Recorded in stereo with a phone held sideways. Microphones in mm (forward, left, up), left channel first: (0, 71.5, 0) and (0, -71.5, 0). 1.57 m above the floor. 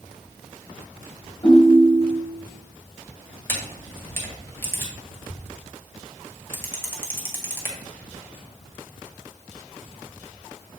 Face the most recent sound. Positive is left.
turn(degrees=15)  # may be behind; listen again after turning